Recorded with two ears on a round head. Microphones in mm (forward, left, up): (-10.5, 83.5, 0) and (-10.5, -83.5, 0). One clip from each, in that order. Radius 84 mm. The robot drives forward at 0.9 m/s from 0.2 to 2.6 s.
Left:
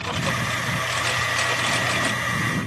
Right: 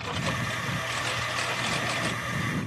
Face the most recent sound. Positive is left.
turn(degrees=10)  # may be behind; listen again after turning